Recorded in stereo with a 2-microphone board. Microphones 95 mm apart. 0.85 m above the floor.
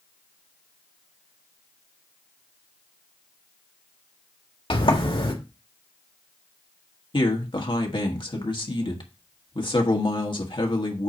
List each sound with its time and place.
4.7 s a sliding door: 65° left (ahead or behind), 1.8 m
7.1 s a man speaking: 55° left (ahead or behind), 1.5 m